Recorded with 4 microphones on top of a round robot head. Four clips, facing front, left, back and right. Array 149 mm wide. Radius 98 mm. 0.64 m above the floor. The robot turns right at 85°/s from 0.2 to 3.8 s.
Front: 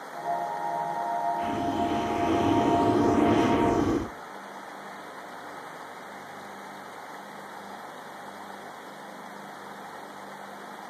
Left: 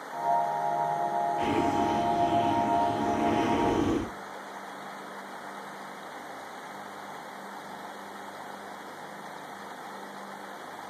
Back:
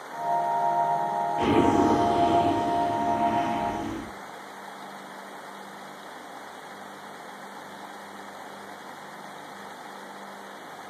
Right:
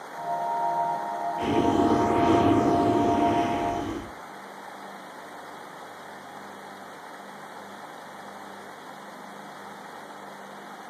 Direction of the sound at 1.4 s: 175° right.